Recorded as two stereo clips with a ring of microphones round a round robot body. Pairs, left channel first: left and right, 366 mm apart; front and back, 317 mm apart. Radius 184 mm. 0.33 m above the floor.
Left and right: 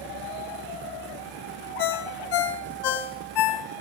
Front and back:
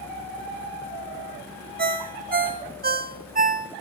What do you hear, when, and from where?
1.8 s a ringtone: 115° left, 1.1 m